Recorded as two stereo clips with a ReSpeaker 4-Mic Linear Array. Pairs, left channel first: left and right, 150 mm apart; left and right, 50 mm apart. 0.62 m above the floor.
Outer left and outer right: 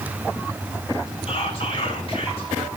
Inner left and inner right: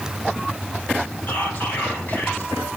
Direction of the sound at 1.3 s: 40° left (ahead or behind).